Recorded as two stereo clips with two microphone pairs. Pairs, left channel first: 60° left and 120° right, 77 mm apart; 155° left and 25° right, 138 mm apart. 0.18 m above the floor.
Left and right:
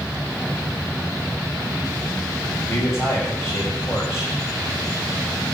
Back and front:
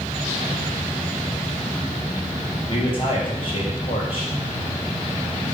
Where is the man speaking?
110° left, 5 m.